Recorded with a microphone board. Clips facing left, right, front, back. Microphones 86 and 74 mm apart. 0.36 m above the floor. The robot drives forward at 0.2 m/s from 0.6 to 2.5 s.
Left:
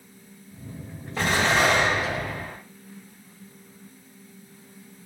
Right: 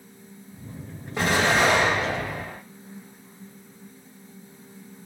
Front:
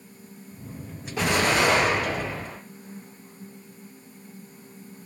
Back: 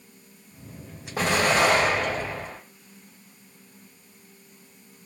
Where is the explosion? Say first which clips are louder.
Right 1 dB, back 1 dB; 150° right, 1.5 m; by 2.6 s 155° right, 1.6 m.